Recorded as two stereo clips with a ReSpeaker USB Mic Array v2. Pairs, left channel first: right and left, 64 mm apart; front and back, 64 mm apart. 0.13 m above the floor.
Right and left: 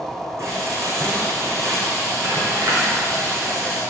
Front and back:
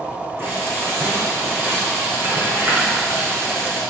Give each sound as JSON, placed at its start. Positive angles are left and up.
{"t": 0.4, "sound": "frying", "azimuth_deg": 130, "distance_m": 7.0}